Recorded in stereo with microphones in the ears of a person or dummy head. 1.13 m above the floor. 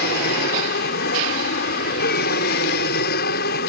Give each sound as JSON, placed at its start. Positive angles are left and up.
{"t": 0.0, "sound": "an aircraft", "side_deg": 55}